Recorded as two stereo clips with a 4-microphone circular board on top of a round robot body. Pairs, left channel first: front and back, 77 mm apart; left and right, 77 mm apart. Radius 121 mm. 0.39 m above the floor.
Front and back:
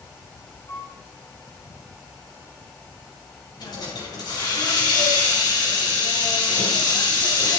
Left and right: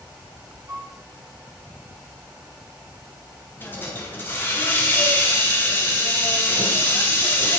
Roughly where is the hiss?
Ahead left.